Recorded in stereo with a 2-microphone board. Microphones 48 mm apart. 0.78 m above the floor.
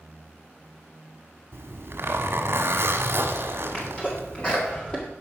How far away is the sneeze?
About 1.7 m.